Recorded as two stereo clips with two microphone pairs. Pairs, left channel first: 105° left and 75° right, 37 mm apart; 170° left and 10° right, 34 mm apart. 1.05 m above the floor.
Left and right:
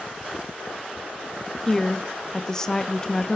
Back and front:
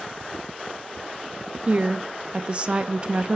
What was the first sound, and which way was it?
A woman speaking, 35° left.